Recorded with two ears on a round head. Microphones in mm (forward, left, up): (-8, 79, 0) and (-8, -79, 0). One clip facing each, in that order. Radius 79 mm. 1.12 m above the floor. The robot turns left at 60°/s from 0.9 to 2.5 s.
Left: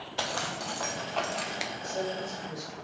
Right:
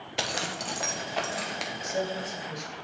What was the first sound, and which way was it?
A zipper, 150° right.